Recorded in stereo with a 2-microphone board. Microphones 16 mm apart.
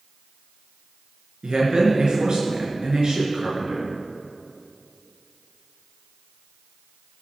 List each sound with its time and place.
1.4 s a man speaking: 55° right (ahead or behind), 3.5 m